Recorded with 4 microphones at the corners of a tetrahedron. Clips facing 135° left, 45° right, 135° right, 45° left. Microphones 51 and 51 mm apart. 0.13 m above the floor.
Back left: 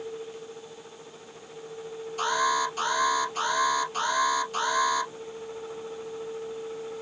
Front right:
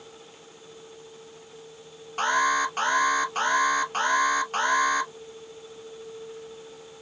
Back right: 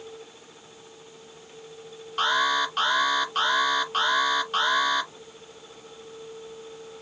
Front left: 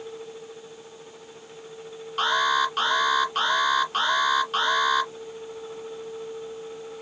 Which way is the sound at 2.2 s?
45° right.